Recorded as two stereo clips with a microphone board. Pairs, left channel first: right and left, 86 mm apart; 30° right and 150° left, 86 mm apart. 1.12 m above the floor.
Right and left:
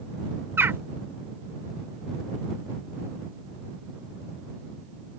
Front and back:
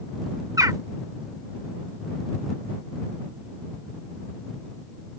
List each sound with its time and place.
0.6 s a bird: 140° left